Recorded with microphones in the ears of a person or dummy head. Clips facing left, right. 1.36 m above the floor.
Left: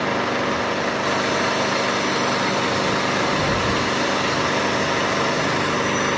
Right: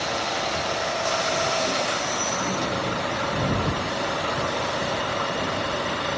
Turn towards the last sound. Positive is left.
turn(degrees=65)  # may be behind; listen again after turning